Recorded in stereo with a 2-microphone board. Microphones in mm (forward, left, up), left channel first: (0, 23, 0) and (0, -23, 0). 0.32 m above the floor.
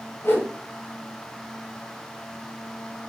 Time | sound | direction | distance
0.2 | a whoosh | 55° left (ahead or behind) | 1.8 m